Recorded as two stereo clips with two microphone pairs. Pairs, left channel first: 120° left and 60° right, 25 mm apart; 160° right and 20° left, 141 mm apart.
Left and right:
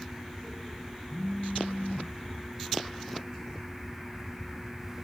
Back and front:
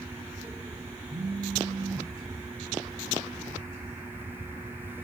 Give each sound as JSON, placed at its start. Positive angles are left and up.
{"t": 1.1, "sound": "a phone buzzing", "azimuth_deg": 75, "distance_m": 3.0}